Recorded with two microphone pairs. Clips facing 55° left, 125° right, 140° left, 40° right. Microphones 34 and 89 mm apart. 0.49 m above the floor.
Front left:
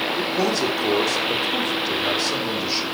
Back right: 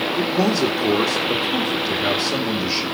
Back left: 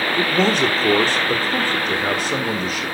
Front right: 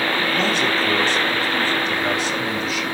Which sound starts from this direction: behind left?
A man speaking, at 0.2 s.